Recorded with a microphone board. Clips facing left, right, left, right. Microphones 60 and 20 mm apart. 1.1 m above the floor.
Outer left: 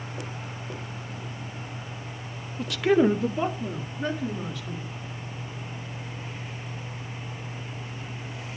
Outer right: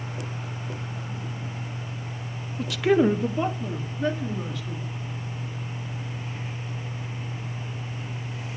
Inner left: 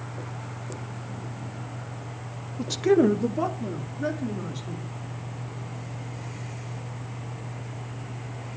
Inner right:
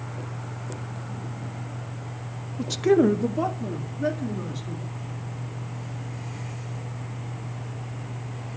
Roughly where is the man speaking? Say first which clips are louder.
Even, inner right 1 dB; centre.